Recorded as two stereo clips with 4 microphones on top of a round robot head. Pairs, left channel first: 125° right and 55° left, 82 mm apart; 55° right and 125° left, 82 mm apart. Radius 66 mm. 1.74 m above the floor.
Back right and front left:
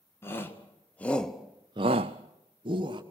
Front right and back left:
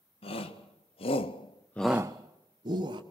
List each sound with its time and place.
0.2 s a shout: 60° right, 2 m; by 3.0 s 95° left, 1.8 m